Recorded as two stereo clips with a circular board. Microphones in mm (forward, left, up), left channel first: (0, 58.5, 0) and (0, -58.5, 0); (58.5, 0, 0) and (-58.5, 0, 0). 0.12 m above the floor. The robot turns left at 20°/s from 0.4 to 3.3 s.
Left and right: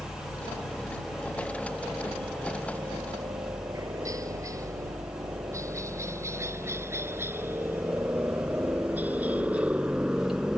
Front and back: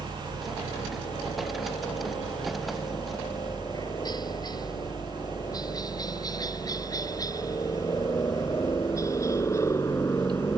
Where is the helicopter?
15° left; by 10.6 s 15° right.